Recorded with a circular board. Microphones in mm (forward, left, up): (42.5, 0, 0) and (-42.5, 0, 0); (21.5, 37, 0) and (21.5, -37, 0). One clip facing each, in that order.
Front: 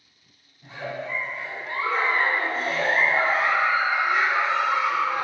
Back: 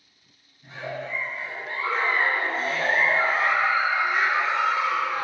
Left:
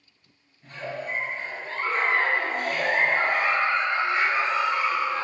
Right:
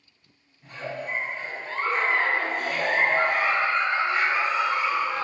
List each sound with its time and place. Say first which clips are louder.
0.6 s a giggle: front 1 dB, even; 10° right, 1.5 m